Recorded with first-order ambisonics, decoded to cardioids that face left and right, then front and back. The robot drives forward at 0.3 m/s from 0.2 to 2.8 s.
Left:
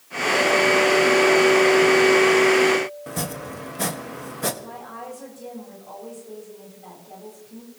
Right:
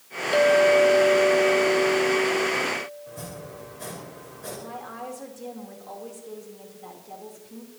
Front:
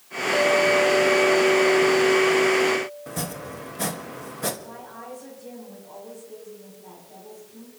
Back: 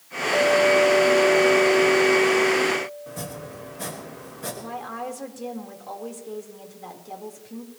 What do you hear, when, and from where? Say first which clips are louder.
0.3 s a clink: right 1 dB, back 1 dB; 95° right, 0.9 m; by 3.6 s 130° right, 1.2 m
3.1 s chopping: left 8 dB, front 3 dB; 65° left, 1.6 m
4.6 s a woman speaking: even, back 7 dB; 170° right, 3.5 m